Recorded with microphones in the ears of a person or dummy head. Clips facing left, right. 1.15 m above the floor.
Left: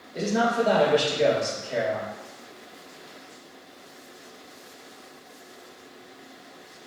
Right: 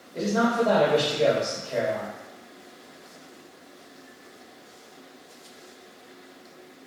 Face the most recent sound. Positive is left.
turn(degrees=15)  # may be behind; listen again after turning